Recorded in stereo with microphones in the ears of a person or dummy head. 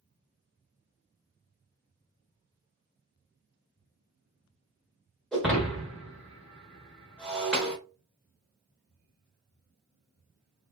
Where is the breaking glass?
Centre (ahead or behind), 1.1 m.